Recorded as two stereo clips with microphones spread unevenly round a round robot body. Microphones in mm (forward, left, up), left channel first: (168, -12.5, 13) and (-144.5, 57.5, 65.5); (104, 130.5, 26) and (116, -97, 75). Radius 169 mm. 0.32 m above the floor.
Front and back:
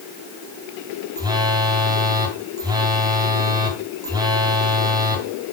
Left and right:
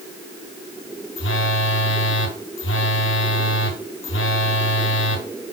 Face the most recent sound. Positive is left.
turn(degrees=85)